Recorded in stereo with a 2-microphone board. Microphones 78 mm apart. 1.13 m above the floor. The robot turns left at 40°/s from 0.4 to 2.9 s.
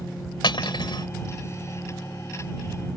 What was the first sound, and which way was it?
Cutlery clinking, 80° left.